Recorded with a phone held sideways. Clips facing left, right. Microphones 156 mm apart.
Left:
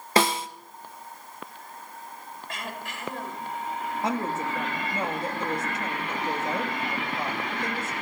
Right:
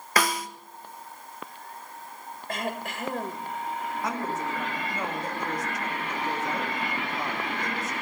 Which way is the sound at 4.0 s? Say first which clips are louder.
Left 4 dB; 25° left (ahead or behind).